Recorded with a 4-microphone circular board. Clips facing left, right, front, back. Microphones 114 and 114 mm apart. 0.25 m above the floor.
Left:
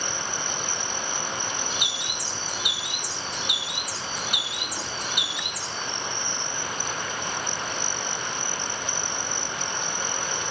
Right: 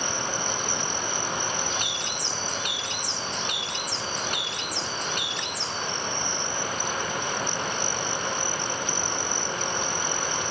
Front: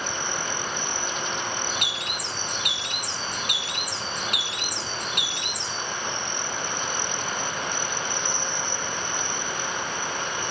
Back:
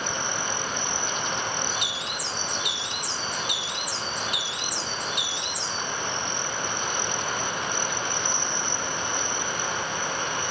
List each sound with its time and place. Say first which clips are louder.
1.7 s a bird: right 2 dB, even; 10° left, 1.3 m